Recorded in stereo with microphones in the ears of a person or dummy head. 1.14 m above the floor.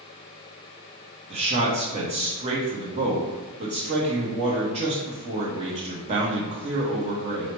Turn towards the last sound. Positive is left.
turn(degrees=-30)  # may be behind; listen again after turning